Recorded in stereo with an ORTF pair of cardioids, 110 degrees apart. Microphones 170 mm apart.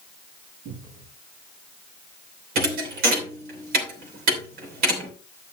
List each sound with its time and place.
0.7 s a cupboard door: 70° right, 5 m
2.5 s a thud: 70° right, 3 m